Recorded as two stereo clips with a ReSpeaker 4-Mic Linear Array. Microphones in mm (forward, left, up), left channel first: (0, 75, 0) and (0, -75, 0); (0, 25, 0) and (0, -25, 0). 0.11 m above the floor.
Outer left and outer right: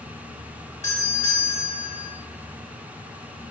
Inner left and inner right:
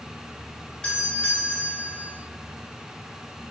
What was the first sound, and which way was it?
A doorbell, 15° left (ahead or behind).